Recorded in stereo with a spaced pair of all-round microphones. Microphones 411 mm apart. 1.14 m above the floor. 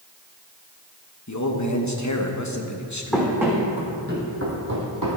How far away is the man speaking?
About 1.2 m.